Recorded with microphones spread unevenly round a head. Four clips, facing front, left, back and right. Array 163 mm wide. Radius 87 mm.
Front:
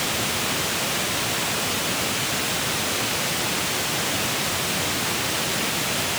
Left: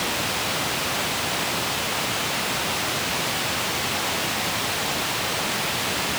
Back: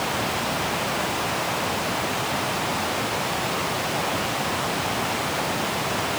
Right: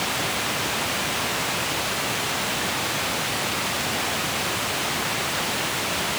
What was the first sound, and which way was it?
Only background noise.